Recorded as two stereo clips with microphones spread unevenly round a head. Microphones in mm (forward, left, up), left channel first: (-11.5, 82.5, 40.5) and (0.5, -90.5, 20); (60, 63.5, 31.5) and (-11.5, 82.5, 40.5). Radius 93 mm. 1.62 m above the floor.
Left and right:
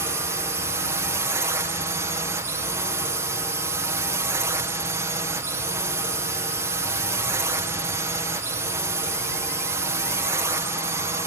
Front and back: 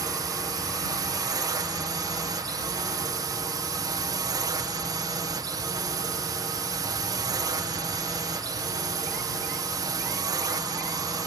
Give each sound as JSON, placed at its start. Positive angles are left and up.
{"t": 0.0, "sound": "a drone", "azimuth_deg": -155}